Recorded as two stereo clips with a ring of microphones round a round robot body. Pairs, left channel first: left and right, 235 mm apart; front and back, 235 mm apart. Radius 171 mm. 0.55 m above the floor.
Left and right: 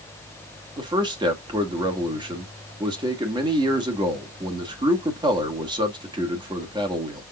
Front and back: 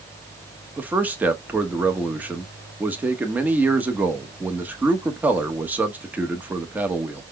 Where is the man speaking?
110° right, 1.3 m.